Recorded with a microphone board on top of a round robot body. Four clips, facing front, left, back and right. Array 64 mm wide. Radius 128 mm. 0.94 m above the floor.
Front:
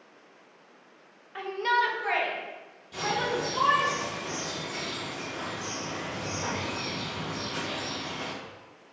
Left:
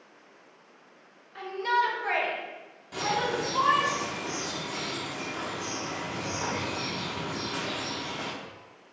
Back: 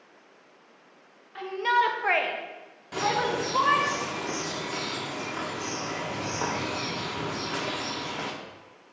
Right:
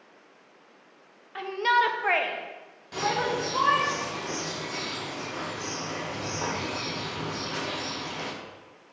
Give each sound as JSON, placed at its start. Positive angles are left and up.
{"t": 1.4, "sound": "a shout", "azimuth_deg": -65, "distance_m": 0.6}
{"t": 2.9, "sound": "a bird", "azimuth_deg": -175, "distance_m": 0.8}